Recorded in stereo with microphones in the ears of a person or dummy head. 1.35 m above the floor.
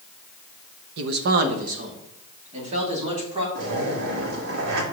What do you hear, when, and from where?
1.0 s a man speaking: 70° right (ahead or behind), 0.7 m; by 3.5 s 35° right (ahead or behind), 3 m
3.5 s a zipper: 70° right (ahead or behind), 1.6 m